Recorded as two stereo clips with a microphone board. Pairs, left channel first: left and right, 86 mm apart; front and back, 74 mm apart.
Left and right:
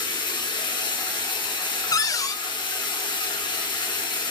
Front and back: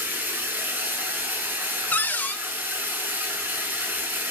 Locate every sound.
0.0 s running water: 115° left, 1.4 m
1.9 s a cupboard door: 60° left, 0.5 m